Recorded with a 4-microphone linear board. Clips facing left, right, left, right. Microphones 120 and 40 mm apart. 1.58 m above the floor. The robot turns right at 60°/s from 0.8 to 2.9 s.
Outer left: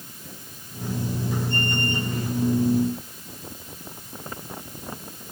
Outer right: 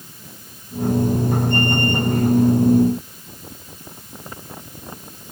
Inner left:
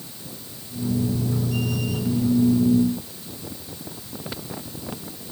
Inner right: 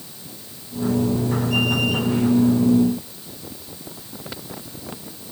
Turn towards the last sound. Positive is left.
No sound to turn to.